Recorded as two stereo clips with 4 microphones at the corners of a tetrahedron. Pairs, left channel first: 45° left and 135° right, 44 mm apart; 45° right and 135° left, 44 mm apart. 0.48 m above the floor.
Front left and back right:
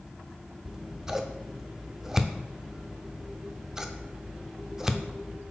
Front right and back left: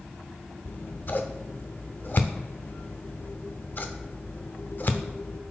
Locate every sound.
0.7 s scissors: 60° right, 0.5 m